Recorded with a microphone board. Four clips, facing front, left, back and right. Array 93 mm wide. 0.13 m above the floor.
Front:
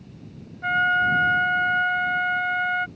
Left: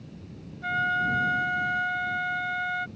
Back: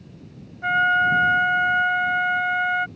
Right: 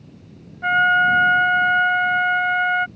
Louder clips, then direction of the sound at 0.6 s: Right 10 dB, back 2 dB; 110° right.